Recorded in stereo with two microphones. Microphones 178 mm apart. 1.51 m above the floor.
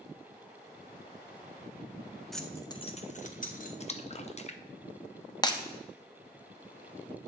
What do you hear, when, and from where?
2.3 s keys jangling: centre (ahead or behind), 0.9 m; by 3.7 s 50° left (ahead or behind), 1.4 m
3.8 s a splash: 35° left (ahead or behind), 0.7 m
5.4 s breaking glass: 25° left (ahead or behind), 0.9 m